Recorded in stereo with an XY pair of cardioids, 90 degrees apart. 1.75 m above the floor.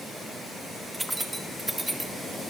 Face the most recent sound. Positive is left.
turn(degrees=-10)